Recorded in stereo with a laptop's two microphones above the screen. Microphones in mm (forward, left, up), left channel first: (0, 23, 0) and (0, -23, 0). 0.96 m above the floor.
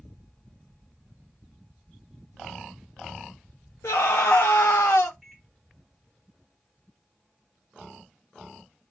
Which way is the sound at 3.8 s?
75° left (ahead or behind).